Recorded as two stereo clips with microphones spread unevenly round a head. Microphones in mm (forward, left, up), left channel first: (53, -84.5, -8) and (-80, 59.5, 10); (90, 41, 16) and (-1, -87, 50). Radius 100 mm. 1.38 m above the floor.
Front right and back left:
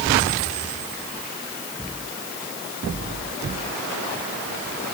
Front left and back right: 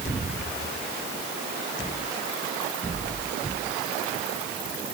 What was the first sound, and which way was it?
Only background noise.